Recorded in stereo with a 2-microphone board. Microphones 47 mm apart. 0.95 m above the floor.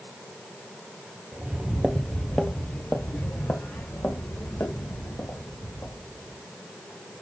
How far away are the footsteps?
About 1.0 m.